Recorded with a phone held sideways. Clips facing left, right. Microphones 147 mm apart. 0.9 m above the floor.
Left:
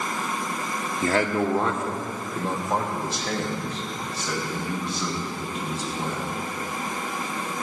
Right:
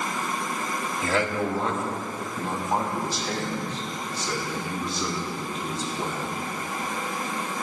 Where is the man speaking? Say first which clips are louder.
Left 3 dB; 45° left (ahead or behind), 1.5 m; by 6.3 s 75° left (ahead or behind), 6.5 m.